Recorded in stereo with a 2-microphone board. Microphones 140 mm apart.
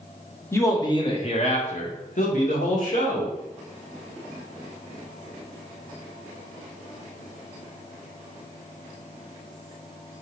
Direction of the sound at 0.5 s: 20° left (ahead or behind).